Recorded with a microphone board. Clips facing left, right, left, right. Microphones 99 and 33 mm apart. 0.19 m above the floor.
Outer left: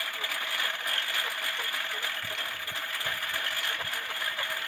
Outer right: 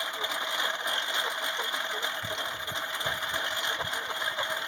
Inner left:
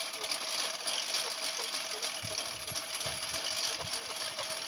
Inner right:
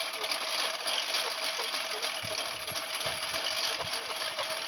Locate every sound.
0.0 s a lawn mower: 20° right (ahead or behind)